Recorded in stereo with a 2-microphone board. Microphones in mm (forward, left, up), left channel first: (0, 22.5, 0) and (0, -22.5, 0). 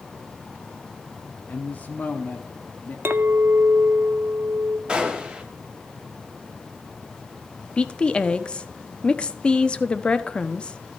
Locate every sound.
1.5 s a woman speaking: 35° left (ahead or behind), 1.0 m
3.0 s a clink: 60° right (ahead or behind), 0.5 m
4.9 s a gunshot: 20° right (ahead or behind), 1.4 m
7.8 s a woman speaking: 20° left (ahead or behind), 0.5 m